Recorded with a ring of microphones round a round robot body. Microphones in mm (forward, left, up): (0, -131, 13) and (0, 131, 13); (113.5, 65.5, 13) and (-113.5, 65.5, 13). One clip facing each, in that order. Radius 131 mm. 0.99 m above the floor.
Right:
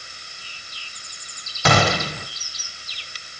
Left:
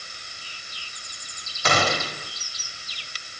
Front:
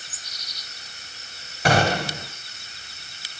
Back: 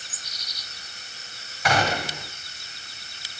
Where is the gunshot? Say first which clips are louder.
Right 5 dB, front 4 dB; 65° right, 1.5 m.